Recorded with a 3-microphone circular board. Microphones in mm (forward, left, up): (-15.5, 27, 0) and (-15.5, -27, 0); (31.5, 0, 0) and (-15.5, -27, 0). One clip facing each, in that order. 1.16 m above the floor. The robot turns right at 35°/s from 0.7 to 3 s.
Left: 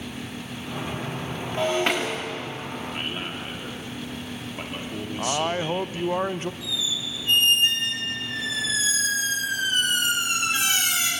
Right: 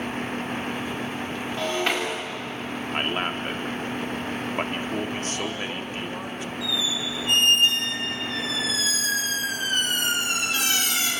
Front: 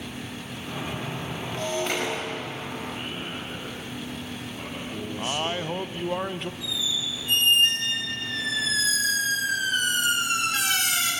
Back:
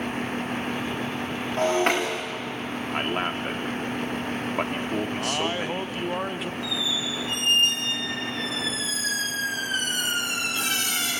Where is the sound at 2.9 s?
140° right, 2.5 m; by 6.2 s 135° right, 2.5 m.